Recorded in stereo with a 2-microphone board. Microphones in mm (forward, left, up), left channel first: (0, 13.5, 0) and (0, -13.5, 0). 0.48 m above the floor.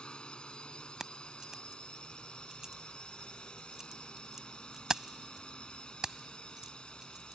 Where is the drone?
40° left (ahead or behind).